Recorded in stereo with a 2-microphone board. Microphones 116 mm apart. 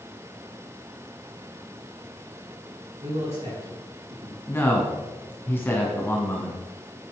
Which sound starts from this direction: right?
A man speaking, at 3.0 s.